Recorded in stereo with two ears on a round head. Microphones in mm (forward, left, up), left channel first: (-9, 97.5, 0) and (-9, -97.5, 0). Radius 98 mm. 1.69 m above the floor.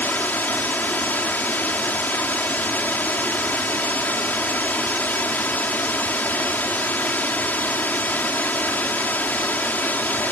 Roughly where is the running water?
Centre.